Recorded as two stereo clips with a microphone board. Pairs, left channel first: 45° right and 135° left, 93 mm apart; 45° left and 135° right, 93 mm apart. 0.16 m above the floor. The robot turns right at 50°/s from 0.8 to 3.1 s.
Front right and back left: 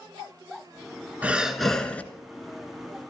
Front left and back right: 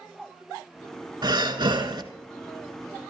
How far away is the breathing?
About 1.2 m.